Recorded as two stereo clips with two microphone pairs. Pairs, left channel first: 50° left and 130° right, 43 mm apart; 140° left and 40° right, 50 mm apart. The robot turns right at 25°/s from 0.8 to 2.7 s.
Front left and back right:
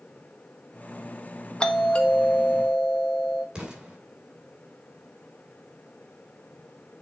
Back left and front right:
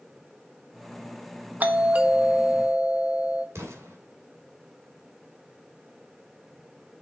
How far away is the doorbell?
About 0.9 m.